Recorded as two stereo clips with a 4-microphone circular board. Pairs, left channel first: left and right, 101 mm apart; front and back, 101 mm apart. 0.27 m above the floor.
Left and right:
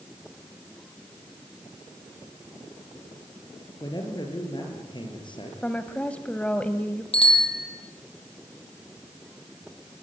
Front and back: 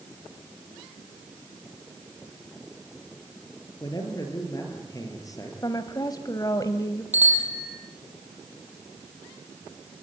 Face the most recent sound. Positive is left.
turn(degrees=110)